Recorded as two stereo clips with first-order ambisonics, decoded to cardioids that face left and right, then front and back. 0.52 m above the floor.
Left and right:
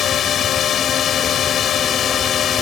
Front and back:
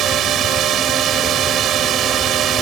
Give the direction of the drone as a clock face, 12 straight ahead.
7 o'clock.